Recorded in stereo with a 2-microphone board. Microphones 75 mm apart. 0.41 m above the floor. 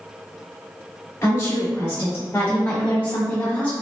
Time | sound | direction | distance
1.2 | a woman speaking | 35° left (ahead or behind) | 1.9 m